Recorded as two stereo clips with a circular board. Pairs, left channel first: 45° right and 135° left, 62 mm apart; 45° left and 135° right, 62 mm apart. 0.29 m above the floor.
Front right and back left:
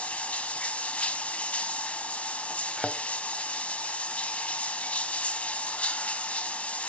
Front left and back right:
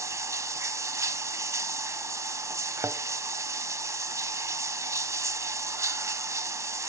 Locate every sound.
0.0 s running water: 110° right, 0.8 m
2.8 s a thud: 125° right, 0.6 m